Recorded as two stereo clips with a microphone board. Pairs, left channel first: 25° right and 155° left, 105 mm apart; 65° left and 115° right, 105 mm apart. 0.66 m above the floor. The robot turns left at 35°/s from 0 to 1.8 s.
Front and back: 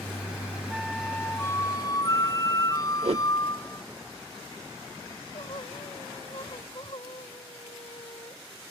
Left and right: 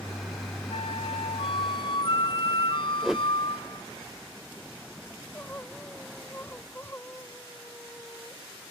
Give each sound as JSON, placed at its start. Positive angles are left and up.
{"t": 0.7, "sound": "a flute", "azimuth_deg": 70}
{"t": 3.0, "sound": "a whoosh", "azimuth_deg": 160}
{"t": 5.1, "sound": "crying", "azimuth_deg": 0}